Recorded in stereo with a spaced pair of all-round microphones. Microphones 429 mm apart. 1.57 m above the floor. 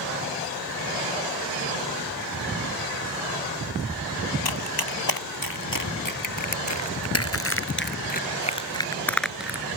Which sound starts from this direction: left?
Running footsteps, at 4.5 s.